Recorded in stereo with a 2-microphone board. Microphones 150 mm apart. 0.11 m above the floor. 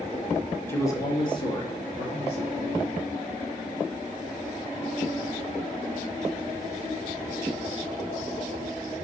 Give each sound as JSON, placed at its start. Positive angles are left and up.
{"t": 0.7, "sound": "a man speaking", "side_deg": 15, "distance_m": 1.7}